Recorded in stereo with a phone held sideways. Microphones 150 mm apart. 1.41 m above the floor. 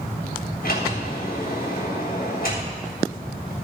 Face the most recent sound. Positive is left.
turn(degrees=75)  # may be behind; listen again after turning